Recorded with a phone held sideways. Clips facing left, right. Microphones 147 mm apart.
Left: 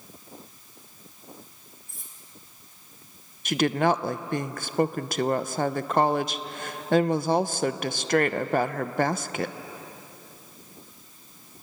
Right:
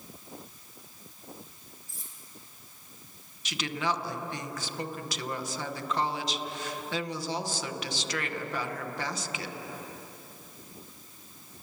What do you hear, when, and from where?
1.9 s cutlery clinking: 60° left (ahead or behind), 4 m
3.5 s a woman speaking: 55° left (ahead or behind), 0.7 m